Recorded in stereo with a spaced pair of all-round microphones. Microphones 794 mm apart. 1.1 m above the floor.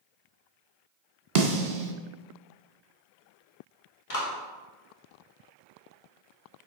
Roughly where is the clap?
Left.